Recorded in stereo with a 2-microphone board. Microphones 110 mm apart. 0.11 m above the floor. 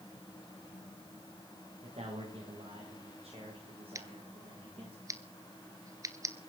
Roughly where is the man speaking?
Right.